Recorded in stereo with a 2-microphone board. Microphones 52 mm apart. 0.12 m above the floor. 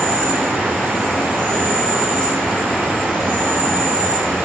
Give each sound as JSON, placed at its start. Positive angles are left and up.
{"t": 0.0, "sound": "an insect", "side_deg": -35, "distance_m": 4.0}